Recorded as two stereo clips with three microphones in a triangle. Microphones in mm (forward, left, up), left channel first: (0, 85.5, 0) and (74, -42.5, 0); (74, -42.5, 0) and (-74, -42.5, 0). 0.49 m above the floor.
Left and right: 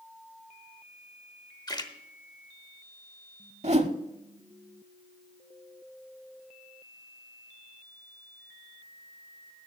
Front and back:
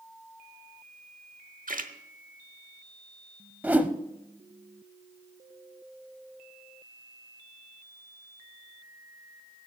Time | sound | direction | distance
1.7 | a splash | straight behind | 0.9 m
3.6 | a whoosh | 100° right | 0.7 m